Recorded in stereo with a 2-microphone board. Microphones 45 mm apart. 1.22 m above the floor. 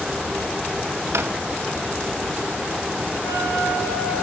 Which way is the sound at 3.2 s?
45° left (ahead or behind).